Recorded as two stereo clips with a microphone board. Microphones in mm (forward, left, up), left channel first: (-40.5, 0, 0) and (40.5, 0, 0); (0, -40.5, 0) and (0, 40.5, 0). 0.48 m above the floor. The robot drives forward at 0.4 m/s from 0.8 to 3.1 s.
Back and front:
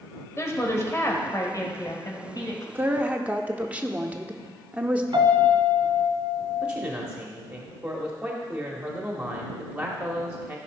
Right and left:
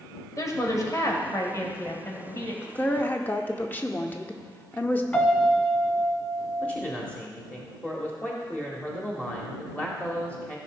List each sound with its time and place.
0.4 s a woman speaking: 130° right, 1.8 m; by 2.6 s 145° right, 2.5 m
2.8 s a woman speaking: 40° right, 0.8 m; by 5.0 s 55° right, 0.7 m
5.1 s a piano: 25° right, 1.3 m
6.6 s a man speaking: 50° right, 1.2 m